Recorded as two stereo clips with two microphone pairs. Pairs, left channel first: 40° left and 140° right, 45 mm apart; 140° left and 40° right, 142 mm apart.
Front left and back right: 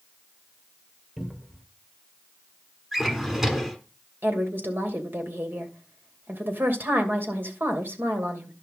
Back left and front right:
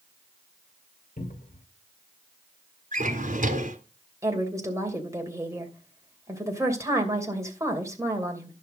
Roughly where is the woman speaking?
Right.